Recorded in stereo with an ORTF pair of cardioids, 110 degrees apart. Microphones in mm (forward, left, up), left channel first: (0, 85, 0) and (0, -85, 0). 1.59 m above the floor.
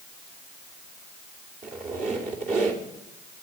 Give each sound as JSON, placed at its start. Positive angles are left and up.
{"t": 1.6, "sound": "a squeak", "azimuth_deg": -60, "distance_m": 3.0}